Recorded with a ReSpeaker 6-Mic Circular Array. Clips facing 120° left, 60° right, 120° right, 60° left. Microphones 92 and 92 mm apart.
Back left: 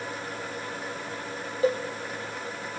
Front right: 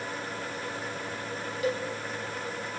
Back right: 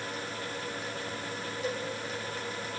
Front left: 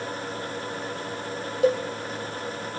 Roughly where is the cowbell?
Ahead left.